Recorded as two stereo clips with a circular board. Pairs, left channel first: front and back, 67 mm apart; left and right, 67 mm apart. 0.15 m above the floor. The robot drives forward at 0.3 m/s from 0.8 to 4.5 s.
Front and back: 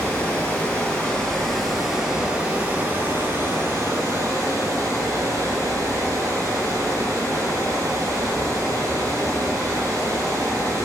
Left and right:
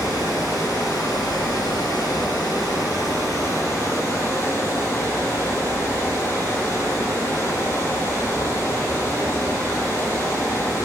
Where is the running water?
70° left, 0.8 m; by 10.9 s 140° left, 1.1 m.